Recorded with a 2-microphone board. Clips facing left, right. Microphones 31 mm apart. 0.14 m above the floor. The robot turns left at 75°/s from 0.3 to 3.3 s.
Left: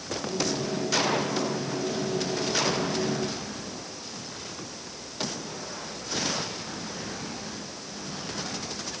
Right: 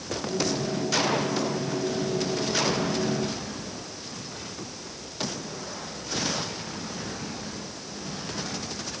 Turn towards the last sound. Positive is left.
No sound to turn to.